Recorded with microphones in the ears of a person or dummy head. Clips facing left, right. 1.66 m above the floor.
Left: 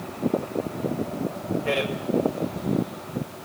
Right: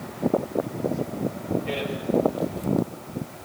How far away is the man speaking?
About 1.5 m.